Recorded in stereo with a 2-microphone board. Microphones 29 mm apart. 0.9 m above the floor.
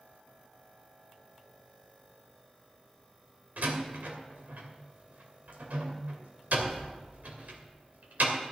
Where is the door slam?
80° right, 2 m.